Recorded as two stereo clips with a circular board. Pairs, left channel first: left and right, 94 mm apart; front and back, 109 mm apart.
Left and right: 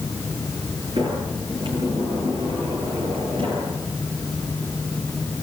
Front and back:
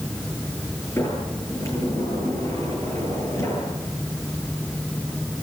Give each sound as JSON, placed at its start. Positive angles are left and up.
{"t": 1.0, "sound": "a sliding door", "azimuth_deg": -65, "distance_m": 10.0}